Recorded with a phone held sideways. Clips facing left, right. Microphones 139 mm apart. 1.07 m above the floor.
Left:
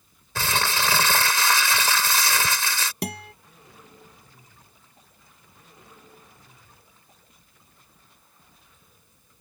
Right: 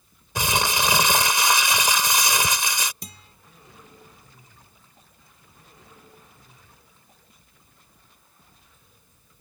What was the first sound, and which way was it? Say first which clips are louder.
Crumpling: right 2 dB; 15° right (ahead or behind).